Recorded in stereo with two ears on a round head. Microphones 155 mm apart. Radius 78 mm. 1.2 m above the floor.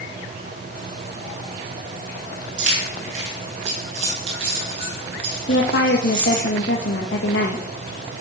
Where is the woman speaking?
65° left (ahead or behind), 1.6 m.